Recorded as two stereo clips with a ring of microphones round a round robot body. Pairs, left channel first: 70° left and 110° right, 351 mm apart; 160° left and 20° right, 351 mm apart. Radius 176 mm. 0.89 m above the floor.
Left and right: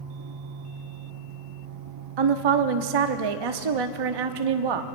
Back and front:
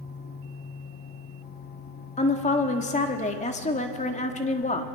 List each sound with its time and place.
2.2 s a woman speaking: 130° right, 1.4 m